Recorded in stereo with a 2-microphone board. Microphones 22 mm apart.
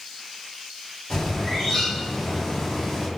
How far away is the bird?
About 1.2 m.